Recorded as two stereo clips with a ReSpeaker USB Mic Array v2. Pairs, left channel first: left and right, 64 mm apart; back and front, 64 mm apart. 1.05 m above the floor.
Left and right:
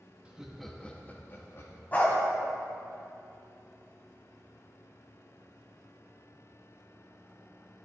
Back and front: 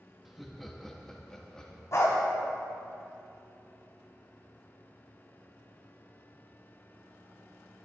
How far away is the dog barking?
About 1.5 m.